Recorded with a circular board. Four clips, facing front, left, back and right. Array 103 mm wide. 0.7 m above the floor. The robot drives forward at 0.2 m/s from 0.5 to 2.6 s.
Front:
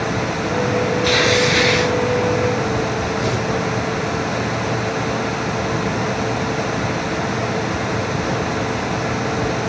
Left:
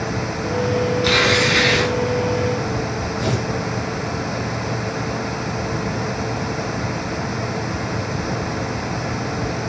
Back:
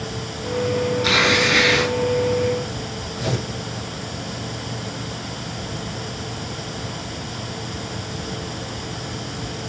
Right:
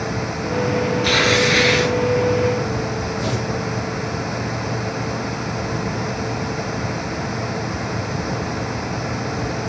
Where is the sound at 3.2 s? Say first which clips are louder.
Left 3 dB, front 5 dB; 90° left, 5 m.